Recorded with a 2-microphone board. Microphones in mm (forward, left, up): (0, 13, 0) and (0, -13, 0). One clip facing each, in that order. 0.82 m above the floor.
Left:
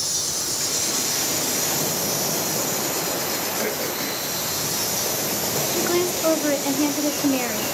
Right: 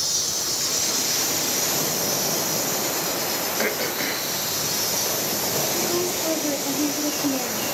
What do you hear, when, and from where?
0.0 s an insect: 15° right (ahead or behind), 3.5 m
3.6 s throat clearing: 20° right (ahead or behind), 0.8 m
5.7 s a woman speaking: 55° left (ahead or behind), 1.4 m